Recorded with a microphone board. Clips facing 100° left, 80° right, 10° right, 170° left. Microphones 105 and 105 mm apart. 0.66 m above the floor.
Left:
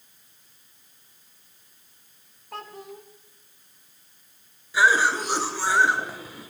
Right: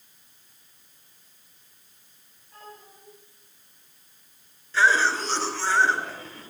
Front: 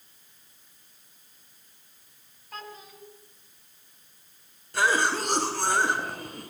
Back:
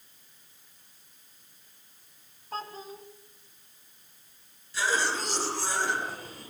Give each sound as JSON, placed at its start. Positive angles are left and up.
{"t": 2.5, "sound": "a child speaking", "azimuth_deg": 115, "distance_m": 4.0}
{"t": 4.7, "sound": "a cough", "azimuth_deg": 20, "distance_m": 7.5}